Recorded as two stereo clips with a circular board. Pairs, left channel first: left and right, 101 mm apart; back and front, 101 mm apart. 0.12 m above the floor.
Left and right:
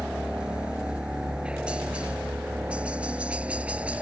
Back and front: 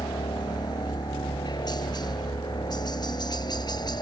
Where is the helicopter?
165° right; by 4.0 s 160° right.